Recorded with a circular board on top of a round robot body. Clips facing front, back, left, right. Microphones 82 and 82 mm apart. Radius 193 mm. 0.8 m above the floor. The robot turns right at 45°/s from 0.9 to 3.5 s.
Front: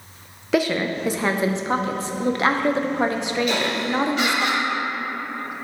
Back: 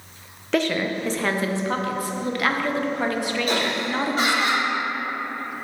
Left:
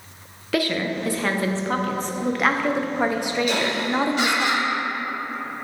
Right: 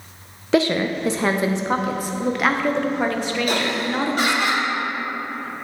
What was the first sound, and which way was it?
A woman speaking, 70° right.